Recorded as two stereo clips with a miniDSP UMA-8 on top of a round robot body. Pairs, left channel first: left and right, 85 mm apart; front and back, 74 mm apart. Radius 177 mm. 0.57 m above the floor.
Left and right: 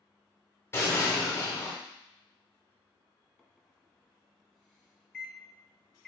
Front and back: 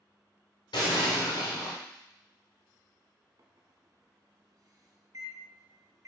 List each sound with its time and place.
0.7 s an explosion: 25° left, 1.1 m
3.4 s a microwave: 170° left, 1.2 m